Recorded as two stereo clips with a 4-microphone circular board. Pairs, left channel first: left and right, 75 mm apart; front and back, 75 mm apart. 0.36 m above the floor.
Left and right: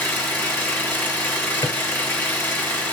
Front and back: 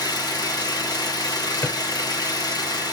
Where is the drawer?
65° left, 3 m.